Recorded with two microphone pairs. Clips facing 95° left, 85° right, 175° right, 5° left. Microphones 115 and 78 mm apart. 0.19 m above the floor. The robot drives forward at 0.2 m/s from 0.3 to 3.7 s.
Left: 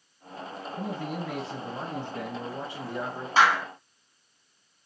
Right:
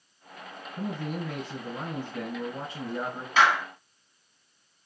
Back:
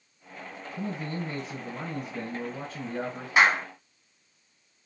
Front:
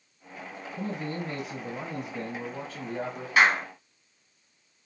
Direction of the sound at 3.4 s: 130° left.